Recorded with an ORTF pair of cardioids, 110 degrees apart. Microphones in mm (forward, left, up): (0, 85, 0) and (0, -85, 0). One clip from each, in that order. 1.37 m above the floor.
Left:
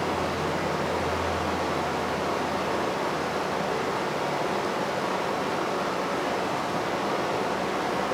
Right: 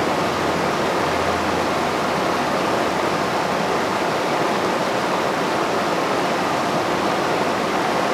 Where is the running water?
50° right, 1.0 m.